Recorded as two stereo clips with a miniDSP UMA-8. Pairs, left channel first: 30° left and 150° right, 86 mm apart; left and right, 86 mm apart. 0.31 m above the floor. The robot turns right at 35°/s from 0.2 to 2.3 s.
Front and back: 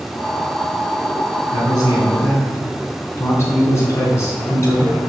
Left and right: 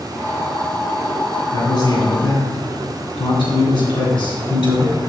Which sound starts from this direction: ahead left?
A man speaking, at 1.5 s.